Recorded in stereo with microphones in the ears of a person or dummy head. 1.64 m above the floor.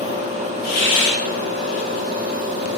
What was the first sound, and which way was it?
A hiss, 65° left (ahead or behind).